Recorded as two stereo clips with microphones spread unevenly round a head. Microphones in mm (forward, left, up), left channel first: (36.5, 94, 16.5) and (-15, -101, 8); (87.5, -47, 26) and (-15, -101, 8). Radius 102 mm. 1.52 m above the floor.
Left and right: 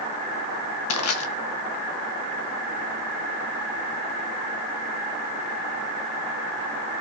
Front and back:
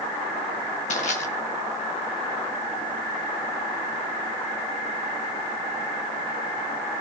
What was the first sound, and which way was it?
Crushing, 70° left.